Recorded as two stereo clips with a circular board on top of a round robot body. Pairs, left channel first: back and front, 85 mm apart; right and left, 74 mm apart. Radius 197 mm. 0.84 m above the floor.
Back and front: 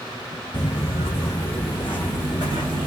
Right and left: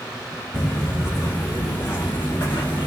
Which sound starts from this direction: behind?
Footsteps, at 0.5 s.